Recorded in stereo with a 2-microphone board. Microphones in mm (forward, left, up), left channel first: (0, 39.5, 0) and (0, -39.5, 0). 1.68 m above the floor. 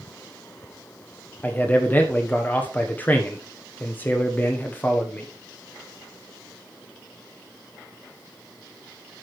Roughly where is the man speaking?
Left.